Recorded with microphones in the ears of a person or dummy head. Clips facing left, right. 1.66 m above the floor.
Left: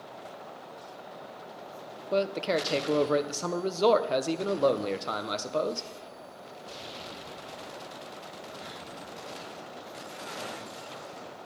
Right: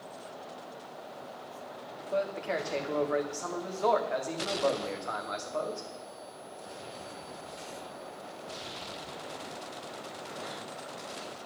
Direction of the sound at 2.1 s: 50° left (ahead or behind).